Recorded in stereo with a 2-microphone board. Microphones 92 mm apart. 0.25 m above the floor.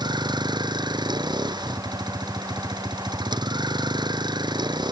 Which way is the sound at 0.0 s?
50° right (ahead or behind).